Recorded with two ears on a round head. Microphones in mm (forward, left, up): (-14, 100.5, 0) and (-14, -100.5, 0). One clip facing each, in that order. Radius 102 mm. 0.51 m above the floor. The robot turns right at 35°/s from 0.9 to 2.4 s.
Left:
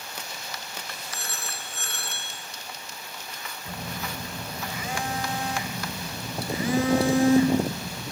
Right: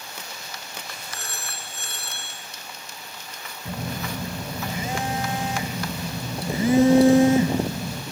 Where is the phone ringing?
100° left, 4.5 m; by 2.3 s 140° left, 4.5 m.